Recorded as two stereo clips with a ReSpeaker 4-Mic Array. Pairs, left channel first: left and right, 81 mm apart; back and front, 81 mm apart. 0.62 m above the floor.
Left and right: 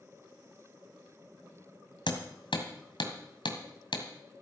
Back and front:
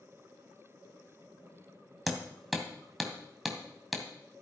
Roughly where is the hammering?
Left.